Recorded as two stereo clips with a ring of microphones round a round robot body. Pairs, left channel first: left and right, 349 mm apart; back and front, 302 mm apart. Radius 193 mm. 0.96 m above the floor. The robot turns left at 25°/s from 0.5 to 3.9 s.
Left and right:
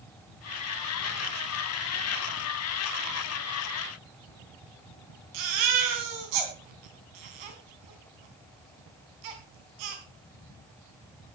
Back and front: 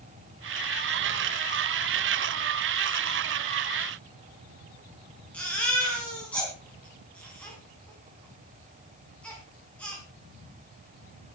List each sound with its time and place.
5.3 s a baby crying: 95° right, 3 m